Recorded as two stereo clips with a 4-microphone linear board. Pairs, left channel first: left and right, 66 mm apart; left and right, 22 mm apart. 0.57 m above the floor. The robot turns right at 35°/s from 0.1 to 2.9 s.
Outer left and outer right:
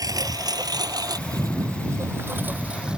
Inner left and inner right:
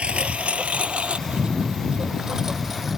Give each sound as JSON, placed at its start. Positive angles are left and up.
{"t": 0.0, "sound": "a lawn mower", "side_deg": -70}